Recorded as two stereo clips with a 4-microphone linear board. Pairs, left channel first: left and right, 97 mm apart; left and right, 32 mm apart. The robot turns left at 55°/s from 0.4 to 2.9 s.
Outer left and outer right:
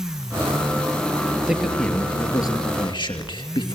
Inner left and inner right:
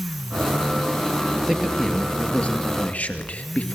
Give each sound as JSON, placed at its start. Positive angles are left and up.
{"t": 1.5, "sound": "a man speaking", "azimuth_deg": -175, "distance_m": 2.5}